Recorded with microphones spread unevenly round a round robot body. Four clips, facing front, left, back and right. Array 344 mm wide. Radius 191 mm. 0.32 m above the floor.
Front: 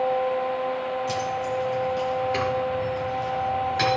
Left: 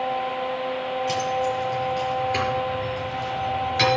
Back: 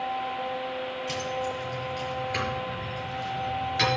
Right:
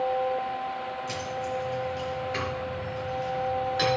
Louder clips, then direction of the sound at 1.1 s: Left 9 dB, front 4 dB; 20° left.